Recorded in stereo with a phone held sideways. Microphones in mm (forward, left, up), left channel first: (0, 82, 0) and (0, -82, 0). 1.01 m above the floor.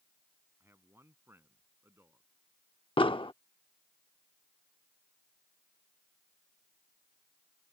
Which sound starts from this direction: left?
An explosion, at 3.0 s.